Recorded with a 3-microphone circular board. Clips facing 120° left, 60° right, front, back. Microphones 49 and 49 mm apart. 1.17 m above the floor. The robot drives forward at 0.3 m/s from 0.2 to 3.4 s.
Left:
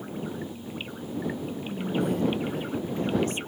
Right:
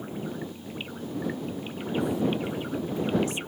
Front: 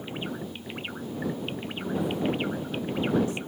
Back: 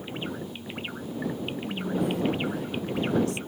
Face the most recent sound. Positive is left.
turn(degrees=165)